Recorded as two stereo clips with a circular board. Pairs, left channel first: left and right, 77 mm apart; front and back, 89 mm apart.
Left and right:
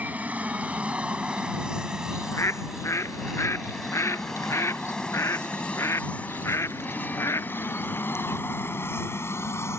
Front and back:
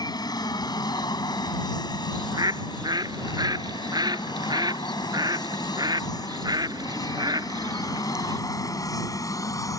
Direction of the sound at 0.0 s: 25° right.